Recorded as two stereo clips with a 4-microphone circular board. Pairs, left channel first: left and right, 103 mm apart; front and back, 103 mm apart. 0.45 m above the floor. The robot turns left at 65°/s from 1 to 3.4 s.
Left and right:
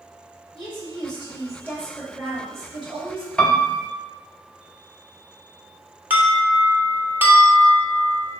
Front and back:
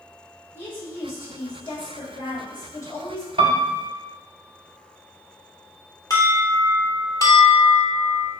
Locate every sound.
0.6 s a woman speaking: 65° left, 2 m; by 3.3 s 85° right, 2 m
3.4 s a piano: 170° left, 0.6 m
6.1 s an alarm: 30° right, 1.3 m